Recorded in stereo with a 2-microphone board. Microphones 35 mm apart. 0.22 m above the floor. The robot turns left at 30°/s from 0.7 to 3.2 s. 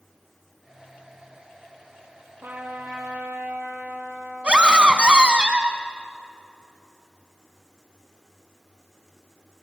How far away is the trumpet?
About 3.5 m.